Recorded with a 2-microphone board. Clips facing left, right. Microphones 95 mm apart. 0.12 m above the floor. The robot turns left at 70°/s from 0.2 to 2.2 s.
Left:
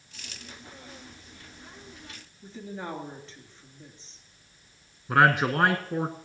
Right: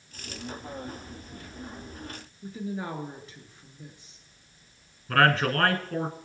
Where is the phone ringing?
I don't hear a phone ringing.